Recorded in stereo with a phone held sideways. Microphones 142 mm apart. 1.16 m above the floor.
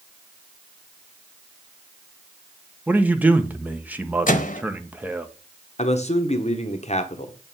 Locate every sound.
2.9 s a man speaking: 10° right (ahead or behind), 0.9 m
4.3 s a microwave: 65° left (ahead or behind), 0.8 m
5.8 s a man speaking: 50° left (ahead or behind), 1.0 m